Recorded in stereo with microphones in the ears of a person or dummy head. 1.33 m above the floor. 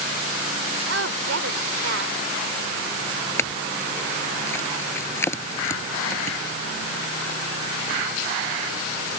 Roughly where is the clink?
Centre.